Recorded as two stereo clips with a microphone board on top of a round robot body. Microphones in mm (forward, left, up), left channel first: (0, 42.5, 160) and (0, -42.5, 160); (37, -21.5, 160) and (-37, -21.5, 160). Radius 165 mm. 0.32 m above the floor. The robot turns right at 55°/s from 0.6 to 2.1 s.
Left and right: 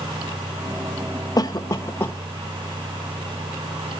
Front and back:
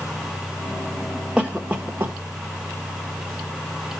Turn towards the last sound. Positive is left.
turn(degrees=145)